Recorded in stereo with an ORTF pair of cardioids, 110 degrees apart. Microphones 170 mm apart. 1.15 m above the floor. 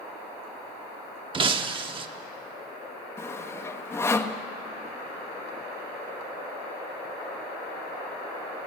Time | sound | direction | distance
1.3 | breaking glass | 30° right | 1.3 m
3.2 | sawing | 15° left | 1.2 m